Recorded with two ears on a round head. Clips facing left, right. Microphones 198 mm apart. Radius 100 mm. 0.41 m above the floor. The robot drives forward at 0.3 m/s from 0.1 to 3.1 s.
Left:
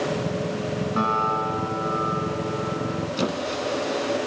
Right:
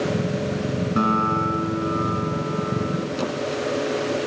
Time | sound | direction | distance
1.0 | a guitar | 25° right (ahead or behind) | 4 m
3.2 | a squeak | 20° left (ahead or behind) | 1.4 m